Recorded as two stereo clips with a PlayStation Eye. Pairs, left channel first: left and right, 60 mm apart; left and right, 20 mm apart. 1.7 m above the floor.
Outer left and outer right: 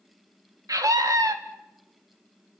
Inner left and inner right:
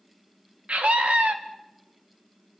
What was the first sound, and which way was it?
A scream, 80° right.